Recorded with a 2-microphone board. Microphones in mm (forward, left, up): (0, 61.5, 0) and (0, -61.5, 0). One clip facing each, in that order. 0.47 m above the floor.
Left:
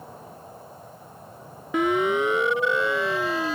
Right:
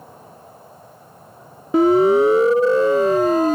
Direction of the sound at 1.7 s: 35° right (ahead or behind).